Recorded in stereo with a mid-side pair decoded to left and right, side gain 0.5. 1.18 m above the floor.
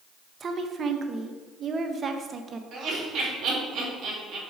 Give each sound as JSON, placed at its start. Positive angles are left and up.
{"t": 0.4, "sound": "a woman speaking", "azimuth_deg": -40, "distance_m": 1.0}
{"t": 2.7, "sound": "laughter", "azimuth_deg": -55, "distance_m": 3.0}